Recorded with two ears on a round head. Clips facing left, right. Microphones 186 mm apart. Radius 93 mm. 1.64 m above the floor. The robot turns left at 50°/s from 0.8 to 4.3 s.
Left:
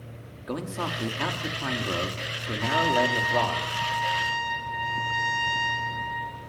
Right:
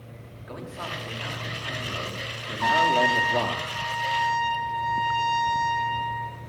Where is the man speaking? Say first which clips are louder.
Left 6 dB; 120° left, 5 m; by 3.6 s 20° right, 5 m.